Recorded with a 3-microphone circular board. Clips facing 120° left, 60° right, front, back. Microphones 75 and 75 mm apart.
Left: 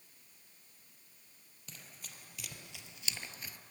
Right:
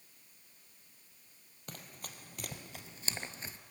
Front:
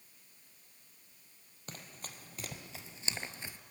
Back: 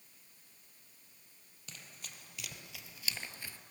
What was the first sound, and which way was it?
Running footsteps, 40° right.